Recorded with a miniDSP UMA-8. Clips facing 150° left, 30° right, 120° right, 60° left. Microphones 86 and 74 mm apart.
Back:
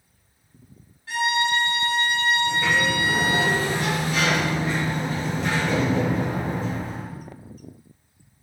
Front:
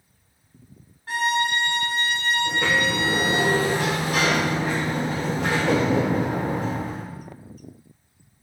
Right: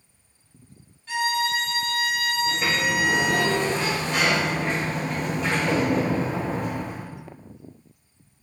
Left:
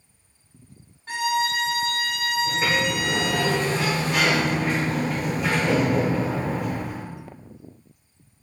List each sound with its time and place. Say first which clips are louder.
1.1 s a violin: even, left 1 dB; 15° left, 1.2 m
2.5 s a sliding door: even, left 2 dB; 20° right, 3.5 m